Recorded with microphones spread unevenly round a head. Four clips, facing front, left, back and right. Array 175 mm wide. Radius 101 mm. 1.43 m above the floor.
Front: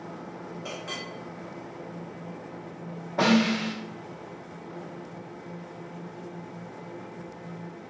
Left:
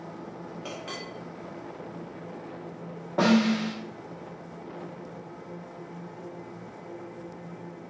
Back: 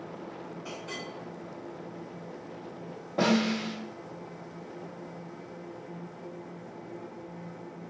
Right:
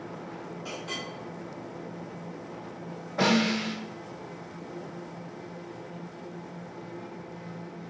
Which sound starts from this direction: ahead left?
A clink, at 0.7 s.